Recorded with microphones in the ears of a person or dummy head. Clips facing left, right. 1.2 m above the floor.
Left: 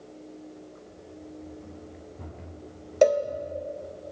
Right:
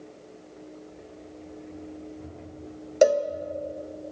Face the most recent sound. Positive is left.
turn(degrees=-10)  # may be behind; listen again after turning